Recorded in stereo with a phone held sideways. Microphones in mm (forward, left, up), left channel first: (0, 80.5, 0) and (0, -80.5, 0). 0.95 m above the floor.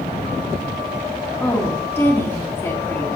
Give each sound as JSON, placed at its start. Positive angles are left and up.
{"t": 1.4, "sound": "a woman speaking", "side_deg": 10, "distance_m": 1.3}